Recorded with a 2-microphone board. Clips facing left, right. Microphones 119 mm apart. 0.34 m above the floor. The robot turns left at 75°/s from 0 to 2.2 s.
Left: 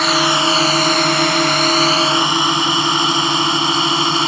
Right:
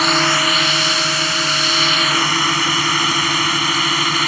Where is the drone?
5° right (ahead or behind); by 4.3 s 25° left (ahead or behind).